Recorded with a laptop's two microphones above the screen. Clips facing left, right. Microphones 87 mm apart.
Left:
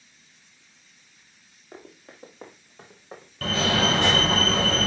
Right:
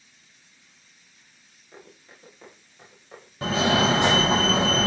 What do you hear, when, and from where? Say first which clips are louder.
1.7 s running footsteps: left 3 dB; 50° left (ahead or behind), 3.5 m; by 4.4 s 25° left (ahead or behind), 2.5 m
3.4 s a fire alarm: right 2 dB; 20° right (ahead or behind), 1.5 m